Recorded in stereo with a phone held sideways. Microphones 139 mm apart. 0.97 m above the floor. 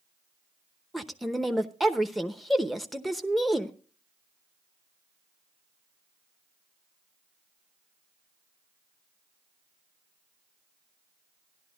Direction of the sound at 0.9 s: Centre (ahead or behind).